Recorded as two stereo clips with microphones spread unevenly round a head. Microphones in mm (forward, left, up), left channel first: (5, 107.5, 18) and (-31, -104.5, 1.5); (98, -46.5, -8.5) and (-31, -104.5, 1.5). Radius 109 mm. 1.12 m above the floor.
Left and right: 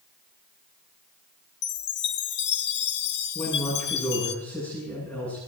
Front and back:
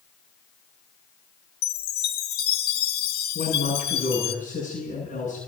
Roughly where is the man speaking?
Ahead.